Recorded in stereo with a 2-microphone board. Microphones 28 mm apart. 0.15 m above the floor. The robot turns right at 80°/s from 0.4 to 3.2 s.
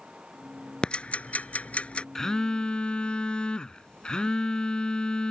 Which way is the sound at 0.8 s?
35° left (ahead or behind).